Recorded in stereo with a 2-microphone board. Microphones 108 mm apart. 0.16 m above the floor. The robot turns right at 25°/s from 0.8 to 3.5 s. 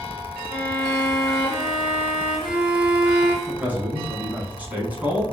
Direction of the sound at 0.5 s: 145° right.